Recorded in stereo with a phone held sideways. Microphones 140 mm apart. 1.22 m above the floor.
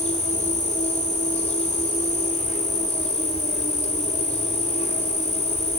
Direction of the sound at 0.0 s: 55° left (ahead or behind).